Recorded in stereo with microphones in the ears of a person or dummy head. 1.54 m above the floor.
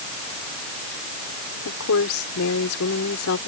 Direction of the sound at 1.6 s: 90° left.